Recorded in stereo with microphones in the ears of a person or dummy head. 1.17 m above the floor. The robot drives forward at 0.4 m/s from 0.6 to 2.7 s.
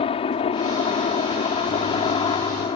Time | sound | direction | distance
0.0 | a helicopter | 30° left (ahead or behind) | ?